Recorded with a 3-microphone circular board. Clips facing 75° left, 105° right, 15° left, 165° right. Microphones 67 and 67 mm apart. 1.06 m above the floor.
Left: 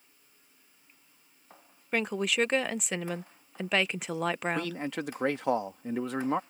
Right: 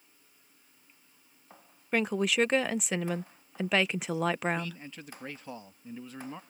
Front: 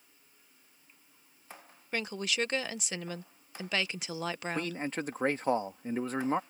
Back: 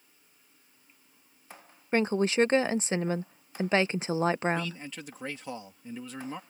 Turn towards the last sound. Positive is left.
turn(degrees=65)